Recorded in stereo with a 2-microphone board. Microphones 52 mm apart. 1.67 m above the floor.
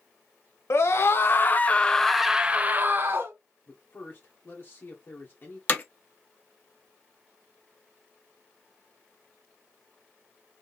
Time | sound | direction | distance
0.7 | a scream | 60° left (ahead or behind) | 1.3 m
3.7 | a man speaking | 45° left (ahead or behind) | 1.4 m
5.7 | hammering | 35° left (ahead or behind) | 1.2 m